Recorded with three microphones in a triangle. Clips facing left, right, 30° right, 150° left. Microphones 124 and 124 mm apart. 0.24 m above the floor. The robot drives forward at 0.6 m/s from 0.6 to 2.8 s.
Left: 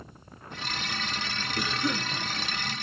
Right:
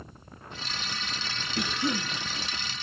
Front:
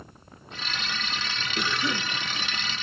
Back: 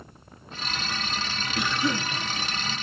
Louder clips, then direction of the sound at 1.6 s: Right 1 dB, back 3 dB; 130° right.